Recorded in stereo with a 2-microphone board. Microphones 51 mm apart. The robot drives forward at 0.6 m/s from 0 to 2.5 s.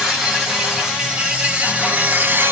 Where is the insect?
15° right (ahead or behind), 1.8 m; by 2.5 s 50° right (ahead or behind), 0.5 m.